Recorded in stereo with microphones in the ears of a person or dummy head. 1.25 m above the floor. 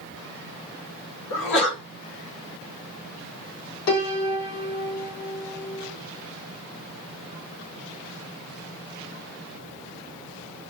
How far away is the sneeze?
About 2.5 m.